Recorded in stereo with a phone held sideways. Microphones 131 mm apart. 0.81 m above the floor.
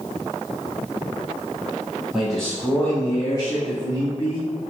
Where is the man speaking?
Centre (ahead or behind), 1.3 m; by 4.5 s 50° left (ahead or behind), 1.6 m.